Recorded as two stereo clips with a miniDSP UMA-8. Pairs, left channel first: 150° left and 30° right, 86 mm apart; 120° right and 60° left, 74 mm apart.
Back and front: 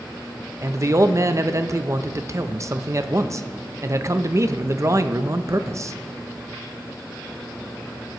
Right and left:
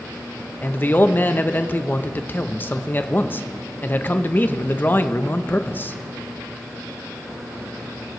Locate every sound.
0.6 s a man speaking: 70° right, 0.6 m